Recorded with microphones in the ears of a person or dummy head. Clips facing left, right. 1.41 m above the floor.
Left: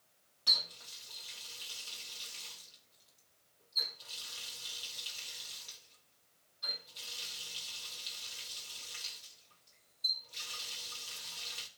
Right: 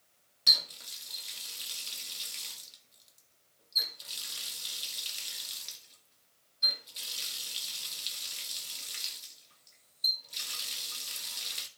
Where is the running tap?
30° right (ahead or behind), 1.8 m.